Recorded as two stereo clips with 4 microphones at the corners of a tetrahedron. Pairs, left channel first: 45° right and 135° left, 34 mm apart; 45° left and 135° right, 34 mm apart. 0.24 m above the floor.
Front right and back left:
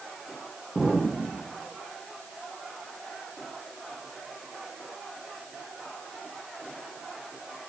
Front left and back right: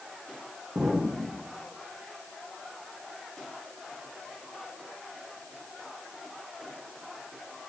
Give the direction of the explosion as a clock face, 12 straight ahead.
4 o'clock.